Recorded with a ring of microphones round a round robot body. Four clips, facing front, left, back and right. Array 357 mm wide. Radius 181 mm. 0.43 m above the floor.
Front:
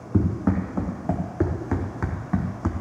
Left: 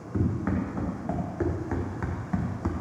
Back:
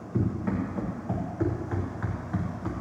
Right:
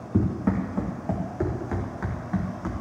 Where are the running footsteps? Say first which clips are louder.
Right 3 dB, front 5 dB; 25° right, 2 m; by 2.7 s 15° left, 1.5 m.